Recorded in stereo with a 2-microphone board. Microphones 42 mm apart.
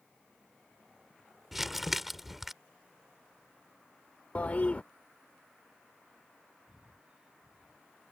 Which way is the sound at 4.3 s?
35° left (ahead or behind).